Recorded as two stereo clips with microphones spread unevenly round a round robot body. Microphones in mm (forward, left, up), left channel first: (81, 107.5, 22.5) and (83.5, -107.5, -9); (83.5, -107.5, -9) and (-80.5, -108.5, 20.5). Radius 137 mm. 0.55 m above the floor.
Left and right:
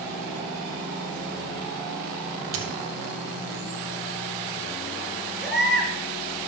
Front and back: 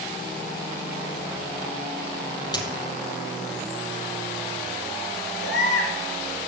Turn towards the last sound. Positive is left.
turn(degrees=0)